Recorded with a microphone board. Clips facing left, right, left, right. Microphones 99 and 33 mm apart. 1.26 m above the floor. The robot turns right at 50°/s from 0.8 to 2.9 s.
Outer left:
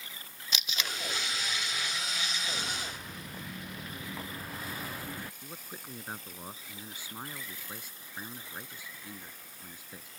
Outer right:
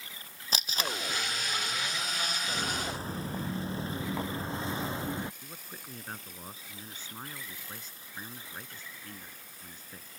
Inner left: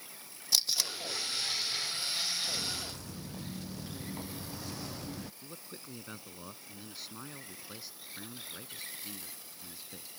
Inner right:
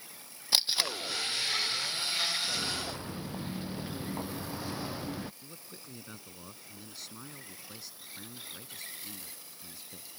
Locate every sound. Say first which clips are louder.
0.5 s tape being pulled: outer right 4 dB, inner right 3 dB; 40° right (ahead or behind); by 1.0 s 45° right (ahead or behind)
2.4 s footsteps: outer right 4 dB, inner right 3 dB; 15° right (ahead or behind); by 5.3 s 25° right (ahead or behind)
5.4 s a man speaking: outer left 2 dB, inner left 2 dB; 10° left (ahead or behind)